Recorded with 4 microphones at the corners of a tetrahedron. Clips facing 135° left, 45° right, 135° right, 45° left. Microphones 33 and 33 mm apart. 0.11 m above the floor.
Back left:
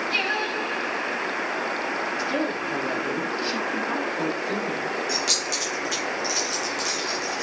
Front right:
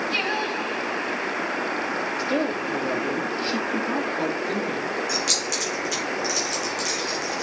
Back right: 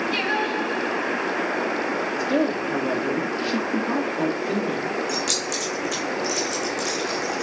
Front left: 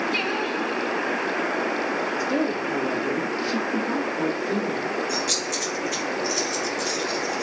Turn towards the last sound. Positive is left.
turn(degrees=-145)